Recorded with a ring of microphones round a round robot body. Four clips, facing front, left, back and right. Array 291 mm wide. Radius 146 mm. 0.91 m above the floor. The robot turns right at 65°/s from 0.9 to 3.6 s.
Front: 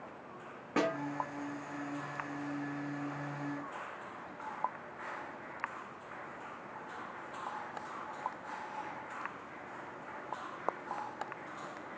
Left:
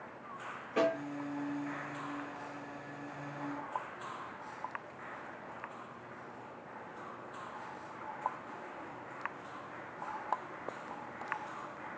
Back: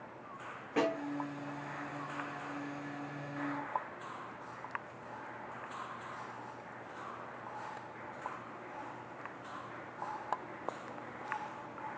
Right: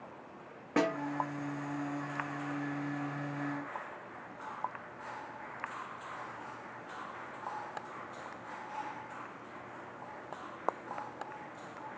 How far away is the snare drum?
About 0.9 m.